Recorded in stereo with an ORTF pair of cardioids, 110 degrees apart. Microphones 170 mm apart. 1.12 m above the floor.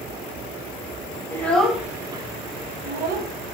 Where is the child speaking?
15° left, 0.9 m; by 3.3 s 70° right, 1.0 m.